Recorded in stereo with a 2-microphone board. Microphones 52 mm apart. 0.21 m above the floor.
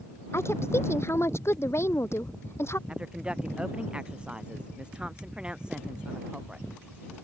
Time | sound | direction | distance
0.3 | a woman speaking | 55° left (ahead or behind) | ?
2.9 | a woman speaking | 20° right (ahead or behind) | ?